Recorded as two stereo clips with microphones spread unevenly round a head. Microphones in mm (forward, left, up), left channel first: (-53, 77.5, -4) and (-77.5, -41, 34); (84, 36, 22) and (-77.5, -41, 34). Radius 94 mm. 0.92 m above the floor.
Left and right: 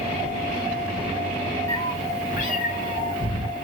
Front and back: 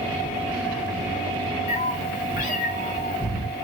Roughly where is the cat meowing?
Ahead.